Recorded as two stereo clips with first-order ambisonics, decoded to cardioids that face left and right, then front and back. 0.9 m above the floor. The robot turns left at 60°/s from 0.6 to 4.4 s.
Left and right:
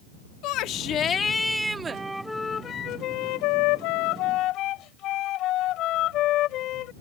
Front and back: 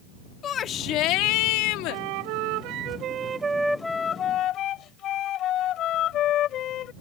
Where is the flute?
160° right; by 6.9 s 50° left.